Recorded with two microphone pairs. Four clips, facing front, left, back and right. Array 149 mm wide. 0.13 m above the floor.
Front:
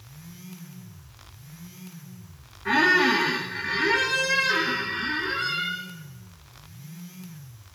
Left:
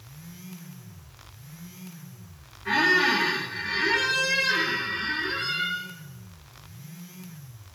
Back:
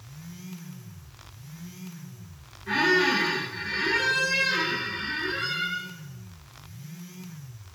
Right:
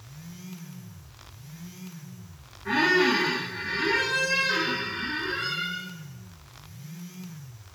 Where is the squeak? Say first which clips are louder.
Right 1 dB, front 2 dB; 5° left, 4 m.